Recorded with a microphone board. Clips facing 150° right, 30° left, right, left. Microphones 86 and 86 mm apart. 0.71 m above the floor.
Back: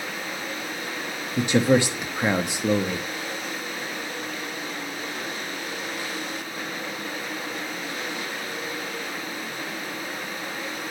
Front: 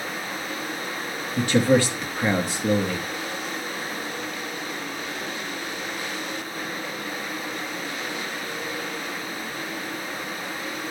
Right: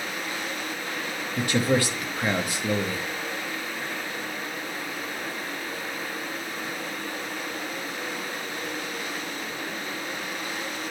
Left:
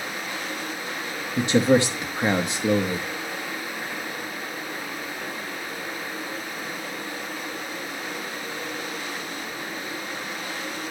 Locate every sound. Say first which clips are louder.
1.4 s a man speaking: even, left 5 dB; 145° left, 0.9 m